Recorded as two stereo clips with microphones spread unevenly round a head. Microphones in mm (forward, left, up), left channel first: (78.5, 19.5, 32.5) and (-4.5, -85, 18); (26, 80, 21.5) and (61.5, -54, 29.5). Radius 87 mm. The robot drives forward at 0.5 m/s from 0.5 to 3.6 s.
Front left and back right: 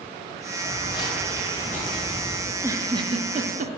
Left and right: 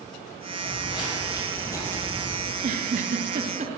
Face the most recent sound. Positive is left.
turn(degrees=-115)